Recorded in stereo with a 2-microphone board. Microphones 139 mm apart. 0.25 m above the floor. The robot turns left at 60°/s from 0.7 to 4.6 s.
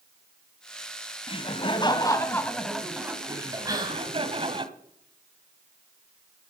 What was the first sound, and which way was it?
Laughter, 90° left.